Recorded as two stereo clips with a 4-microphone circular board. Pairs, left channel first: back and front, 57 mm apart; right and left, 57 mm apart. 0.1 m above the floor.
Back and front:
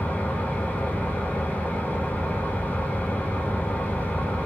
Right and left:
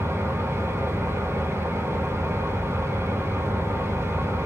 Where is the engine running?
115° left, 3 m.